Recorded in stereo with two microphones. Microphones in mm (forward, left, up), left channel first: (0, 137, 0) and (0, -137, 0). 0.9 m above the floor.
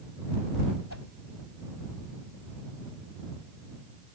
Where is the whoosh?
70° left (ahead or behind).